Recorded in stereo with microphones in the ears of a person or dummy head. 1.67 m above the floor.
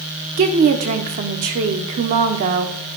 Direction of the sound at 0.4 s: 40° right (ahead or behind).